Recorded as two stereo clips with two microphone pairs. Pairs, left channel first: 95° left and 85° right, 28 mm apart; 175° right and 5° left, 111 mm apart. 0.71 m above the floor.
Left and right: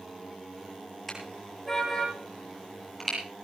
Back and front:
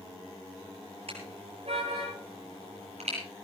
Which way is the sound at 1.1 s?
20° left.